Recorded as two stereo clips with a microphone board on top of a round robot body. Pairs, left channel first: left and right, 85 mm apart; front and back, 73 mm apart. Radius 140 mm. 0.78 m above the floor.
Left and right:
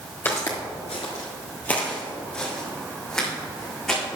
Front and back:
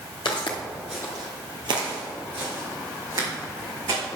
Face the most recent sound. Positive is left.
turn(degrees=175)